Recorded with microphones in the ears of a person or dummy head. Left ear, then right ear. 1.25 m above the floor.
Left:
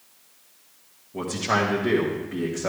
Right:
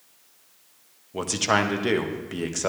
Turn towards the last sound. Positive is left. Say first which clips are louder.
# right 1 dB
turn(degrees=-85)